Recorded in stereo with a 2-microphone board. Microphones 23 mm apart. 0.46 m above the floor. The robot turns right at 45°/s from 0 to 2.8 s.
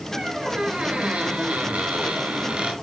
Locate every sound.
0.1 s a squeak: 160° right, 4 m; by 2.7 s 45° right, 4 m